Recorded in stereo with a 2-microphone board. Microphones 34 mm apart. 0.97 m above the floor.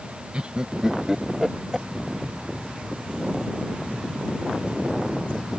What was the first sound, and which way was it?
Laughter, 35° right (ahead or behind).